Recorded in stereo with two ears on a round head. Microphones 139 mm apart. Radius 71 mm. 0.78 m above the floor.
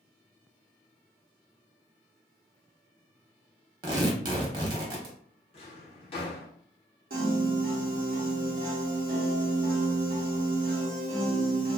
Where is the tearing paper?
30° right (ahead or behind), 0.7 m.